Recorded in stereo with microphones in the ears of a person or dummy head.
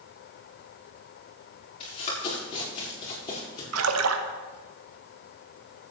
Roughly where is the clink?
No clink in this recording.